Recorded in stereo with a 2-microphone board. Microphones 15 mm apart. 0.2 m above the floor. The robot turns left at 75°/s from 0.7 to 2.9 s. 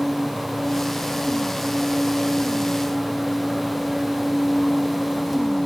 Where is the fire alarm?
I don't hear a fire alarm.